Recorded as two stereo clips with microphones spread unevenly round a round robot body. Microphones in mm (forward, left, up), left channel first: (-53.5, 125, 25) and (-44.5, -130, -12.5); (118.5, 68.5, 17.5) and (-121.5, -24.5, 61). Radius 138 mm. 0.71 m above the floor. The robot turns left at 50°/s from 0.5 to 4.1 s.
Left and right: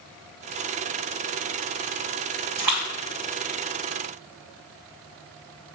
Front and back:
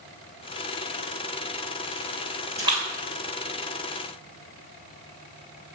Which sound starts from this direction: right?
A splash, at 2.6 s.